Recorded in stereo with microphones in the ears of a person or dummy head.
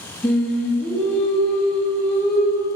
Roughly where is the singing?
Centre.